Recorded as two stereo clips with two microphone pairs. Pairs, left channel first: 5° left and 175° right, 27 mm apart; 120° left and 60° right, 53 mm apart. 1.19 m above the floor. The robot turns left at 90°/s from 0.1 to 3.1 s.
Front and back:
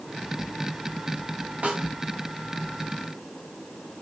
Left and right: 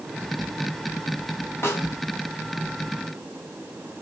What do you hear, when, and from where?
1.6 s a snare drum: 155° left, 6.5 m; by 1.9 s 130° left, 6.5 m